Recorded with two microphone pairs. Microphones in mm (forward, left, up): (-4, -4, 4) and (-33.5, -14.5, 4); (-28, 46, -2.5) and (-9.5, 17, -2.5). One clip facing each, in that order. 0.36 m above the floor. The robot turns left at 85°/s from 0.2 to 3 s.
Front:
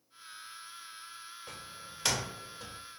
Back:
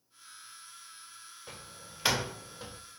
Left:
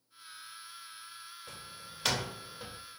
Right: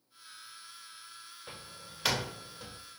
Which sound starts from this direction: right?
A door slam, at 1.5 s.